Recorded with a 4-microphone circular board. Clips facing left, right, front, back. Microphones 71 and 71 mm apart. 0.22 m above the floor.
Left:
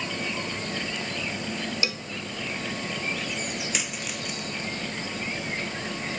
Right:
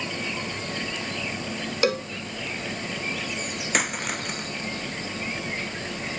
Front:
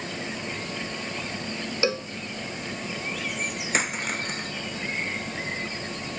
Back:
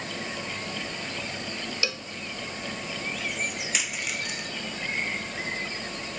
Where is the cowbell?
55° right.